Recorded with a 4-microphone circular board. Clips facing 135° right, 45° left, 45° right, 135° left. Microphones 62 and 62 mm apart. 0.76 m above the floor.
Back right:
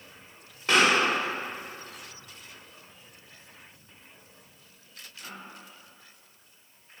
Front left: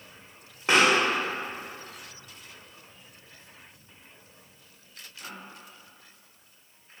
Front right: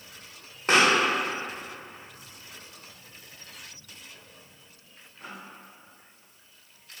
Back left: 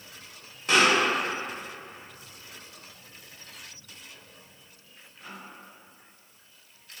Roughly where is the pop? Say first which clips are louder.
Front left 1 dB, front right 1 dB; ahead.